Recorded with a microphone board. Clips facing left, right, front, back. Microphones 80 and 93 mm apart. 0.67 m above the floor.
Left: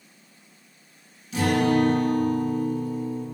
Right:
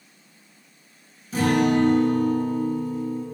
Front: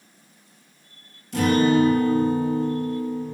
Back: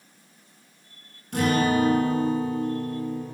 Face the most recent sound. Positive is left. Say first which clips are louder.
# right 1 dB, front 4 dB
turn(degrees=-140)